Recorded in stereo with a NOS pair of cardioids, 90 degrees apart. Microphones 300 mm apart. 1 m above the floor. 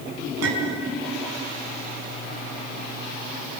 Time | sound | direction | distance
0.4 | a clink | 55° right | 5 m